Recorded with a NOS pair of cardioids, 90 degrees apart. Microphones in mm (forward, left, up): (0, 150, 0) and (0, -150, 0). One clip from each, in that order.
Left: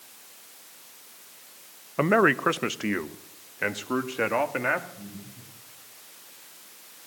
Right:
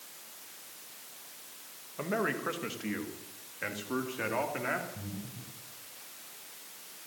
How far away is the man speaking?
About 0.7 m.